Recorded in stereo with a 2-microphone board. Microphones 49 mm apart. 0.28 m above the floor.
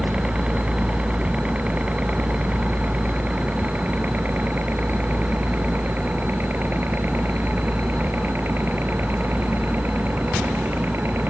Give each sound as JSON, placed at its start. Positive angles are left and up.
{"t": 0.0, "sound": "a helicopter", "side_deg": -25}